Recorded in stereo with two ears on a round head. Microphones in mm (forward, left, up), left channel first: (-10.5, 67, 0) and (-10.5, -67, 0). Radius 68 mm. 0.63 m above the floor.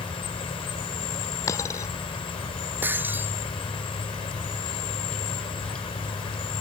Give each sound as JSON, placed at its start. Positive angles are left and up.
{"t": 0.0, "sound": "an insect", "side_deg": 35}
{"t": 1.5, "sound": "a dropped coin", "side_deg": 20}
{"t": 2.8, "sound": "breaking glass", "side_deg": -15}